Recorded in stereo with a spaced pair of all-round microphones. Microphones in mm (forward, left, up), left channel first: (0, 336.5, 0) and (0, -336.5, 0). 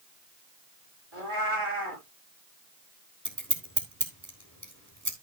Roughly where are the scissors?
Right.